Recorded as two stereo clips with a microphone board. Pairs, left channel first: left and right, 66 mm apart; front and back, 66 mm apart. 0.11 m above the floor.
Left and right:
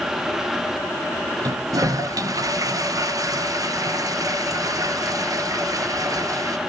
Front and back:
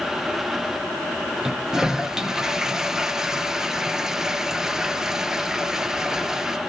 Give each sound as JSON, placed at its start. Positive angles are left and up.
{"t": 1.4, "sound": "a toilet flushing", "azimuth_deg": -100, "distance_m": 0.9}